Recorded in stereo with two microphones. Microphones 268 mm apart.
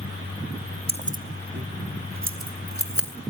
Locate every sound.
0.9 s keys jangling: 20° right (ahead or behind), 0.8 m; by 3.1 s 55° right (ahead or behind), 2.5 m